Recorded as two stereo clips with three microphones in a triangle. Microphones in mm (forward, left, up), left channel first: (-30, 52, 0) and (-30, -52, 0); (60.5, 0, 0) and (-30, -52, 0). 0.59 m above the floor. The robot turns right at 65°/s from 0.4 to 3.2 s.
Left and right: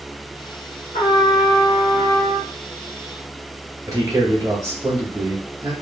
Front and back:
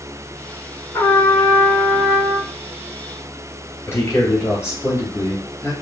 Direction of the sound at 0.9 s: 90° left.